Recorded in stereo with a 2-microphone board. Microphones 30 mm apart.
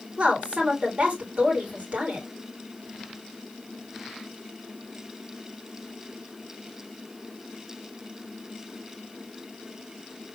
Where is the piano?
I don't hear a piano.